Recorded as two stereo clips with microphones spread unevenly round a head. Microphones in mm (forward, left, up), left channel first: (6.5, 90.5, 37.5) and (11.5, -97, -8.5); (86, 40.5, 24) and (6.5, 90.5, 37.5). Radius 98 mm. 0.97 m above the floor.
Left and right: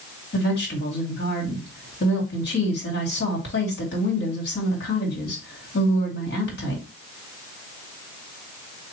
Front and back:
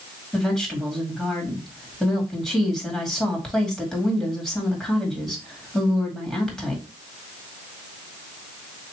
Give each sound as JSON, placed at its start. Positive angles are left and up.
{"t": 0.3, "sound": "a woman speaking", "azimuth_deg": 50, "distance_m": 2.0}